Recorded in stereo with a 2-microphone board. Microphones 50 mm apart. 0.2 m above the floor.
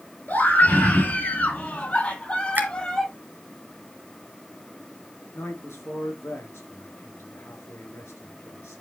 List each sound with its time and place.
0.3 s a scream: 40° left (ahead or behind), 3.5 m; by 3.1 s 10° left (ahead or behind), 1.6 m
2.5 s a finger snap: 40° right (ahead or behind), 2 m
5.3 s a man speaking: 65° left (ahead or behind), 4 m